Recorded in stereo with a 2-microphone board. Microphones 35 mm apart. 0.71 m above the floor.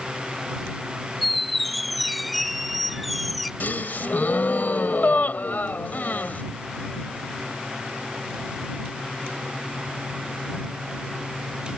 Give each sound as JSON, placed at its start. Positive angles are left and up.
{"t": 1.2, "sound": "a squeak", "side_deg": 0}
{"t": 3.6, "sound": "a gasp", "side_deg": 60}